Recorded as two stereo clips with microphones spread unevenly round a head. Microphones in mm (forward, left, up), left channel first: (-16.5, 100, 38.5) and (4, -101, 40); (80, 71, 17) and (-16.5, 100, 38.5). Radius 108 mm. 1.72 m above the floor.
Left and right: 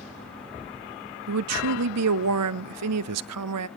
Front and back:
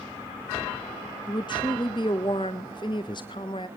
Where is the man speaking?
85° right, 0.6 m.